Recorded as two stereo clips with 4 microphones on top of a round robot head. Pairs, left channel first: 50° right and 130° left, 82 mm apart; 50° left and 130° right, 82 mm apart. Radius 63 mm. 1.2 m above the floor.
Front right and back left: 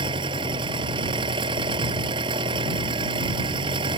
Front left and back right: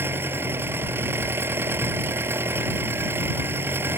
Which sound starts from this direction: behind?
An engine running, at 0.0 s.